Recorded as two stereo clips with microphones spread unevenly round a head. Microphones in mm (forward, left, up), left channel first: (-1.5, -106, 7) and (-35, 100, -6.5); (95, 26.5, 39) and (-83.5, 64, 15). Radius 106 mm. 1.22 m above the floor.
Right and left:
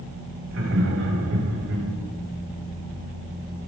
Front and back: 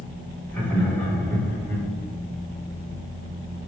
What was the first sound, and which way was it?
Laughter, 70° left.